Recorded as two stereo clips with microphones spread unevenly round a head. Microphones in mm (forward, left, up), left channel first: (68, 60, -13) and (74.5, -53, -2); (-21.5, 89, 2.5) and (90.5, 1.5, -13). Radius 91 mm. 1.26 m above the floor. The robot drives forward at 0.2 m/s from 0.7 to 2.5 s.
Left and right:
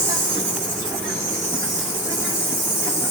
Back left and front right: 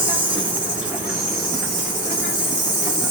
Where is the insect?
125° right, 0.9 m; by 3.1 s 145° right, 1.0 m.